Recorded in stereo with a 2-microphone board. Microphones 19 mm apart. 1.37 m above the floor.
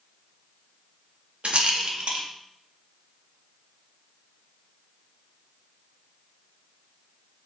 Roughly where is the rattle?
Right.